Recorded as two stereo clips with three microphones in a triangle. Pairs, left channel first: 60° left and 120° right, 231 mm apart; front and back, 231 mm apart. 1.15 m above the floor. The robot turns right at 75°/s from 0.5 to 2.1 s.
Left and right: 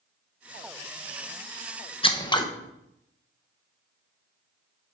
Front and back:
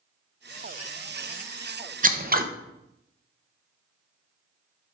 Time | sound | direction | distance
2.0 | scissors | 120° left | 0.6 m